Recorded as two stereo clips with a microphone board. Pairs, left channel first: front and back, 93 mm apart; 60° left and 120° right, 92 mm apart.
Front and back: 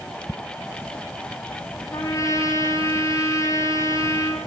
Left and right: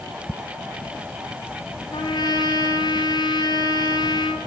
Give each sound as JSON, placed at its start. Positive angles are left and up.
{"t": 1.9, "sound": "a trumpet", "azimuth_deg": 45, "distance_m": 1.7}